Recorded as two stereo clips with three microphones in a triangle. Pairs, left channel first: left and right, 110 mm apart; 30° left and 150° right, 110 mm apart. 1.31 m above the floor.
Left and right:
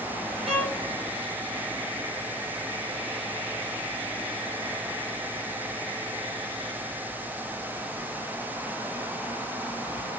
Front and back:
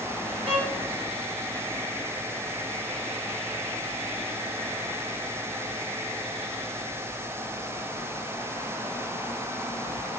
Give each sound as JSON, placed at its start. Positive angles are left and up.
{"t": 0.5, "sound": "a violin", "azimuth_deg": -120, "distance_m": 1.0}